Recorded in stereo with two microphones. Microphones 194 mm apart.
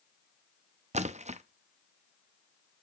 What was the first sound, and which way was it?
A splash, 35° right (ahead or behind).